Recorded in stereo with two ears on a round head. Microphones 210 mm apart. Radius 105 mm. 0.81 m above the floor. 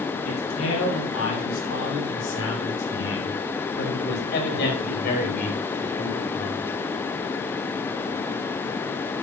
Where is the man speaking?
65° left (ahead or behind), 7 m; by 6.6 s 30° left (ahead or behind), 4 m.